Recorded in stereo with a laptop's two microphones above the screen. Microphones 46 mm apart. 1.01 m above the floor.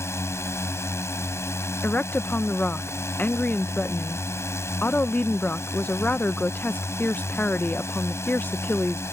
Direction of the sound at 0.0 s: 70° left (ahead or behind).